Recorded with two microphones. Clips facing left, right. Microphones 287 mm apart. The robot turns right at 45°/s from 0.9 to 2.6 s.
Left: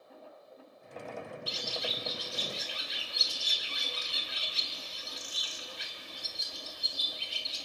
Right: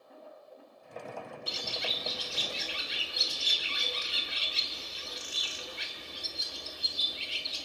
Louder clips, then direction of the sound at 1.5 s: Even; 125° right.